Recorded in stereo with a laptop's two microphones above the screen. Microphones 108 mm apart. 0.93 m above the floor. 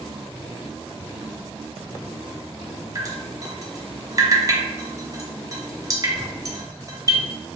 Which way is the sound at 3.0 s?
35° right (ahead or behind).